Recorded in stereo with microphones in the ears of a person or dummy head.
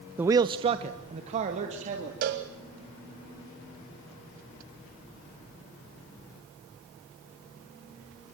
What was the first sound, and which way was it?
A man speaking, 10° right (ahead or behind).